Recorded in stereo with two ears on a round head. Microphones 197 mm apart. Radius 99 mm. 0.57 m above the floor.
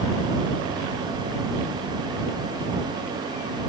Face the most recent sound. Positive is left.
No sound to turn to.